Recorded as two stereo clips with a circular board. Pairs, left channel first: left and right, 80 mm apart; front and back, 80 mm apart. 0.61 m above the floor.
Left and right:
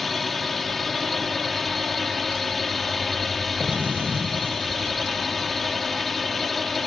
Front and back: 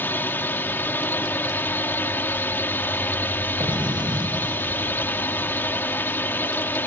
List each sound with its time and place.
0.0 s a drone: 5° left
3.6 s an explosion: 160° right